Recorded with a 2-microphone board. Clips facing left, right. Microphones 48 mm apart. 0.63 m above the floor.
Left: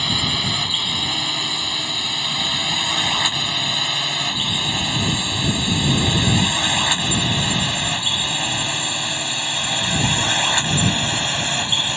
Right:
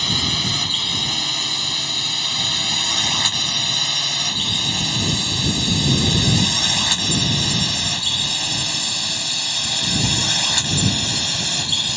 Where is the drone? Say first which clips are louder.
Left 1 dB; 10° left (ahead or behind); by 12.0 s 25° left (ahead or behind).